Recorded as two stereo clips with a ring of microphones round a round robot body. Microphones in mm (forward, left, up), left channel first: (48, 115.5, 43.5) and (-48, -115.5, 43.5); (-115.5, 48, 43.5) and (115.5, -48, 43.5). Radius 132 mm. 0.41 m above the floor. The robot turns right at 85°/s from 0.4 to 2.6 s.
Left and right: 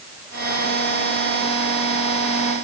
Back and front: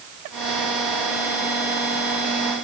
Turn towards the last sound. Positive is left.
No sound to turn to.